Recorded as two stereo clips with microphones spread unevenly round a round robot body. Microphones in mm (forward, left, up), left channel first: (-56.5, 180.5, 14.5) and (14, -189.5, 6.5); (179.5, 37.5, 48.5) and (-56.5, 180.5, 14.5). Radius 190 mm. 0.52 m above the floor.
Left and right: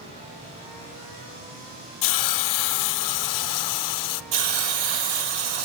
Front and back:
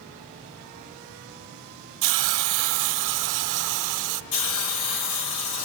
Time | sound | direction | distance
2.0 | a hiss | 145° left | 0.6 m
4.3 | a hiss | 60° right | 1.9 m